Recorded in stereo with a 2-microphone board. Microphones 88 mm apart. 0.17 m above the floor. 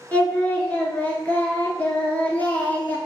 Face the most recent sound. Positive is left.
turn(degrees=20)  # may be behind; listen again after turning